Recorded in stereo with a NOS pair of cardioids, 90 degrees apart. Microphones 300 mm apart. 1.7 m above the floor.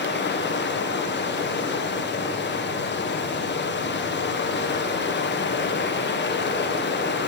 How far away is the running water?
About 1.1 m.